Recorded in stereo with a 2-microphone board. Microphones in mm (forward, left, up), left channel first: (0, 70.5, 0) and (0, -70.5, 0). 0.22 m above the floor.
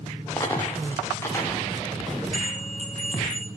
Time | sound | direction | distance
0.4 | a dropped coin | 20° left (ahead or behind) | 6 m
2.3 | a bell | 65° right (ahead or behind) | 2.5 m